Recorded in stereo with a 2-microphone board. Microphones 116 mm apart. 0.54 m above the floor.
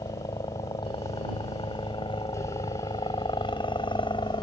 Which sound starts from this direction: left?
A helicopter, at 0.0 s.